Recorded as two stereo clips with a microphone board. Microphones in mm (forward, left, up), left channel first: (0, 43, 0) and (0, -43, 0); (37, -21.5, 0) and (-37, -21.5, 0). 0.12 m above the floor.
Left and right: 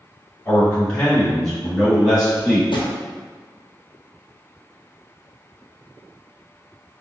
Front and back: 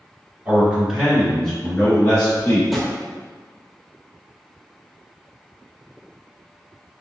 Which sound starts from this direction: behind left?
A man speaking, at 0.5 s.